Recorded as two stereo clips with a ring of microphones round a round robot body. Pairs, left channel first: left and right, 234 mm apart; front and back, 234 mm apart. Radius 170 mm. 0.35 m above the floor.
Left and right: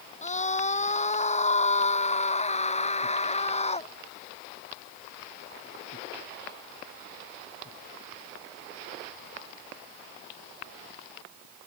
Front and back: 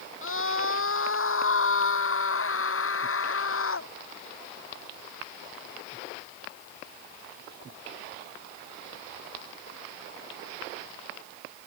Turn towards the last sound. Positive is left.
turn(degrees=25)